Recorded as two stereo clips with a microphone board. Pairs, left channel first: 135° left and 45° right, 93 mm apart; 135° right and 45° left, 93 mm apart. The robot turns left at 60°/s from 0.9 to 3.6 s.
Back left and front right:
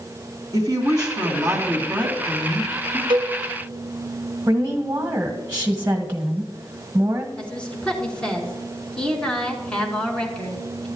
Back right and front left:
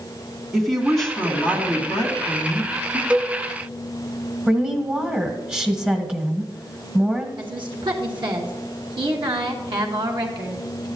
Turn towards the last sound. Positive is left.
turn(degrees=60)